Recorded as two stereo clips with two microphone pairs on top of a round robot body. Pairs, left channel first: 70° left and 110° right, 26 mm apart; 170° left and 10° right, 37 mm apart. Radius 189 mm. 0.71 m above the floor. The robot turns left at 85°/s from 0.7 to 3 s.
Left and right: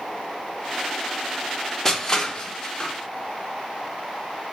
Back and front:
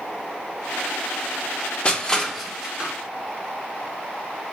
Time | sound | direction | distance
1.9 | crushing | 125° left | 0.9 m